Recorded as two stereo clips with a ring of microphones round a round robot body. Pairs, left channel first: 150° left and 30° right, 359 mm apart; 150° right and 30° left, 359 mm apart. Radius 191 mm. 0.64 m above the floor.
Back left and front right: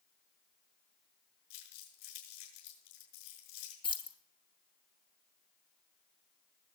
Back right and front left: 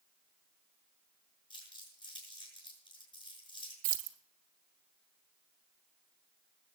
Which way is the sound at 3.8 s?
70° left.